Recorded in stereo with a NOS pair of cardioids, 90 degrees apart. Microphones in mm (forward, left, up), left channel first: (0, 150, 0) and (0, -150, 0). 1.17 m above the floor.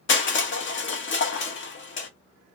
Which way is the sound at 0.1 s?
40° left.